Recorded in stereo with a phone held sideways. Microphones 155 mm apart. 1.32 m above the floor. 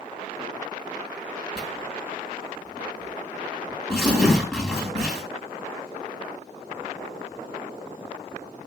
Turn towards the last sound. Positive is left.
turn(degrees=5)  # may be behind; listen again after turning